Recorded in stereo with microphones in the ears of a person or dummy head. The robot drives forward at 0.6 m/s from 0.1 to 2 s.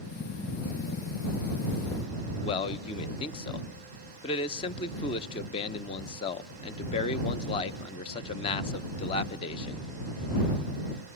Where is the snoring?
No snoring in this recording.